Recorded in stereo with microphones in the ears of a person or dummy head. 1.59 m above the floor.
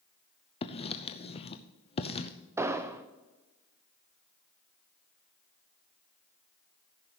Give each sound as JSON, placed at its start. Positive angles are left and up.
{"t": 0.6, "sound": "writing", "side_deg": 35, "distance_m": 0.6}
{"t": 2.6, "sound": "an explosion", "side_deg": -10, "distance_m": 0.5}